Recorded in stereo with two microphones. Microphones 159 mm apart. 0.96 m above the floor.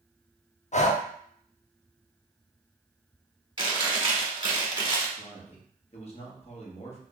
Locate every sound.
0.7 s breathing: 45° left (ahead or behind), 0.6 m
3.6 s chewing: 30° right (ahead or behind), 1.2 m
5.2 s a man speaking: 40° left (ahead or behind), 1.2 m